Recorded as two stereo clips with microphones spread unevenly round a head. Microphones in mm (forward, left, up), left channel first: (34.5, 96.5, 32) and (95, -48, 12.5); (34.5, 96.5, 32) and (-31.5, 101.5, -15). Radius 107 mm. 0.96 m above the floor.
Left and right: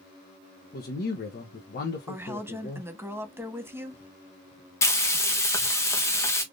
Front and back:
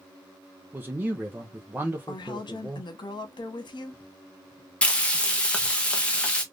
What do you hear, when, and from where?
0.7 s a man speaking: 145° left, 0.6 m
2.1 s a woman speaking: 10° left, 1.0 m
4.8 s frying: straight behind, 0.8 m